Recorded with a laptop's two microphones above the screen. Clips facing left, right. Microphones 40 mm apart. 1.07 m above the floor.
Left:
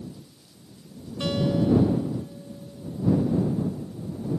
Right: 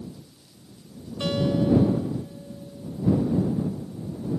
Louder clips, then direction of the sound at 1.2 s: Even; 5° right (ahead or behind).